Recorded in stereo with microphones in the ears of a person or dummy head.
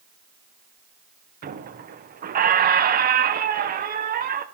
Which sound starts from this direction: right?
A squeak, at 1.4 s.